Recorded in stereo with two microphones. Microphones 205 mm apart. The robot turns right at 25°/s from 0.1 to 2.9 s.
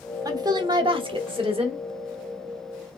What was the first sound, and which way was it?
A woman speaking, 15° right (ahead or behind).